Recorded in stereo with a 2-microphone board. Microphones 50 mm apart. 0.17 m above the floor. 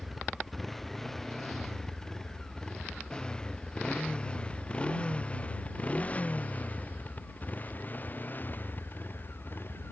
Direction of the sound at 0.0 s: Centre (ahead or behind).